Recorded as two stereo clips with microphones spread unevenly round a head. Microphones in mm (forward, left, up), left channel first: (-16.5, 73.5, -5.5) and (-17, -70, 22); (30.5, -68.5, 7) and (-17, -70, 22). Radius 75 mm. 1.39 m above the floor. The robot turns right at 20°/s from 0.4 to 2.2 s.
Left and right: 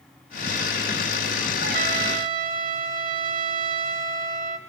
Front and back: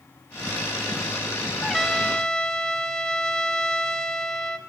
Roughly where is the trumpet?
Right.